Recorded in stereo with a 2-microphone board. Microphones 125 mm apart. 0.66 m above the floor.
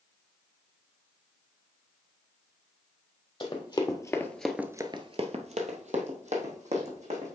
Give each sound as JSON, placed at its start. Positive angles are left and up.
{"t": 3.4, "sound": "running footsteps", "side_deg": 35, "distance_m": 1.6}